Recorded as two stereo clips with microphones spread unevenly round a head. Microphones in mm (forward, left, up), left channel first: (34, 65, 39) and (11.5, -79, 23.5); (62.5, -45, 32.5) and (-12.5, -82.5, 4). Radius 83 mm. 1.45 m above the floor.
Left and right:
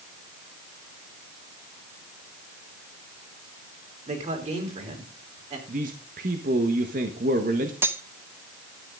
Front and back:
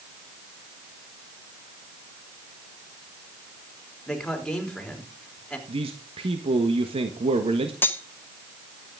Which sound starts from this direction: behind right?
A man speaking, at 5.7 s.